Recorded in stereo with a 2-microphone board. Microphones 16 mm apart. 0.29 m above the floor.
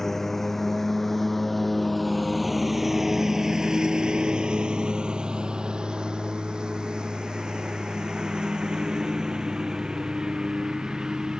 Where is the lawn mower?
20° left (ahead or behind); by 11.4 s 50° right (ahead or behind).